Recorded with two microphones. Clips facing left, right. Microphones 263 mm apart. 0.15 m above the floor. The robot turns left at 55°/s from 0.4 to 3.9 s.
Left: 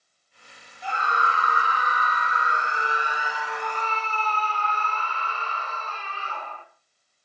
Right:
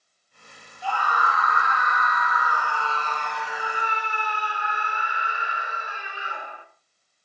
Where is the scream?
145° left, 1.7 m; by 6.7 s 25° right, 1.7 m.